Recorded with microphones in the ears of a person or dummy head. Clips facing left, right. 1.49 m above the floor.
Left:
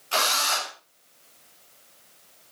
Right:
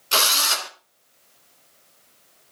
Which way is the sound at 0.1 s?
55° right (ahead or behind).